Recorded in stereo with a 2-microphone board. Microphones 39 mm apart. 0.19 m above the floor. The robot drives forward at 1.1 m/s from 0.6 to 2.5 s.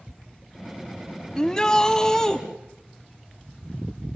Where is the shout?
20° left (ahead or behind), 1.2 m; by 2.4 s 15° left (ahead or behind), 1.7 m.